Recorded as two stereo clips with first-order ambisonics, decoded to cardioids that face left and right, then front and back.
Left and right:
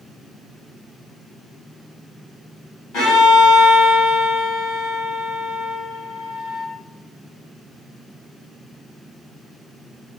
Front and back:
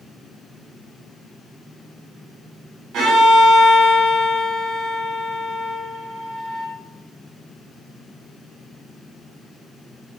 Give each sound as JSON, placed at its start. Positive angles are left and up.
{"t": 2.9, "sound": "a violin", "azimuth_deg": 135, "distance_m": 1.9}